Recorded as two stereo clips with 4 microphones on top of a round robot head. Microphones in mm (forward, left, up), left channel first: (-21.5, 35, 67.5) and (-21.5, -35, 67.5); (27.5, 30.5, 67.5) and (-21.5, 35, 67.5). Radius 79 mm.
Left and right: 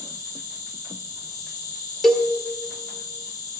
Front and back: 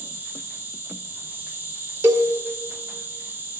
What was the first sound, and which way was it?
An insect, 120° left.